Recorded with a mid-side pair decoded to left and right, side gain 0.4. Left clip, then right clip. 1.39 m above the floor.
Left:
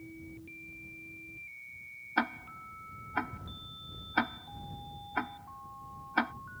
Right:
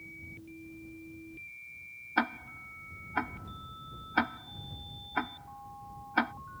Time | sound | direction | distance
2.2 | ticking | 10° right | ?